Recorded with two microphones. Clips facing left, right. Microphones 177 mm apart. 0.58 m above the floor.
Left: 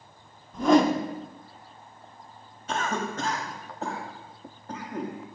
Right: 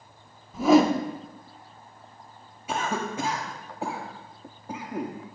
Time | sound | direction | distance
0.5 | a whoosh | 5° right (ahead or behind) | 0.8 m
2.7 | a cough | 10° right (ahead or behind) | 1.1 m